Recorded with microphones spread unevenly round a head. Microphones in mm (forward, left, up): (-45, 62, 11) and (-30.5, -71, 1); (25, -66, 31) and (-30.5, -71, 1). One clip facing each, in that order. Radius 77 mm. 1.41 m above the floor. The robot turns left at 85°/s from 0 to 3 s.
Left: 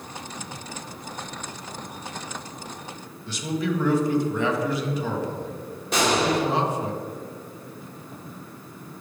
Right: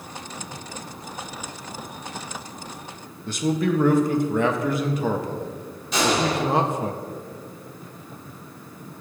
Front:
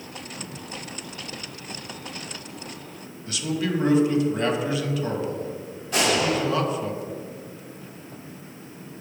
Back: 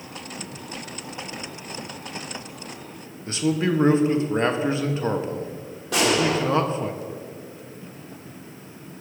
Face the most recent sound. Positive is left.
turn(degrees=135)